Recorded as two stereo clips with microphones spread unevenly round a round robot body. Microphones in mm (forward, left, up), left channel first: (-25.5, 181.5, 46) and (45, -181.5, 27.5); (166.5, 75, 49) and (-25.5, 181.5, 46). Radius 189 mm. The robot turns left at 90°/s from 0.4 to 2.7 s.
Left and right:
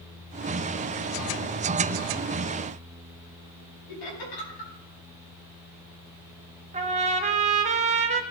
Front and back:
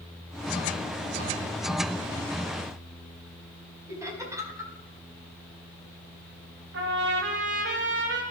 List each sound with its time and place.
3.9 s laughter: 75° left, 4.5 m
6.7 s a trumpet: 150° right, 0.9 m